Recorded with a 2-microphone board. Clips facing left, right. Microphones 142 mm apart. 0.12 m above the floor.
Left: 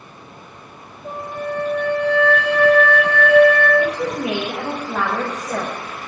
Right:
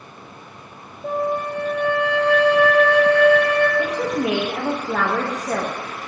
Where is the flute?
70° right (ahead or behind), 3.5 m.